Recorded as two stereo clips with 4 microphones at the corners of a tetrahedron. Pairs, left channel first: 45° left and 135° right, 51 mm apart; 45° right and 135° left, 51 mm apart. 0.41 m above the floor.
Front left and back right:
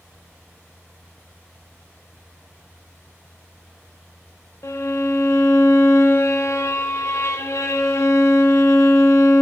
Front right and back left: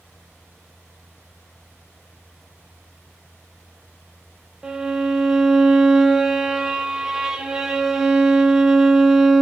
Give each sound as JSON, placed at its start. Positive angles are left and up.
{"t": 4.6, "sound": "a violin", "azimuth_deg": 60, "distance_m": 0.5}